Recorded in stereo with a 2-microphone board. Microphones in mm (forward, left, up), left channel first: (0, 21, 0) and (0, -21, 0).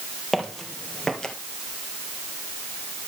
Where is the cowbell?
No cowbell in this recording.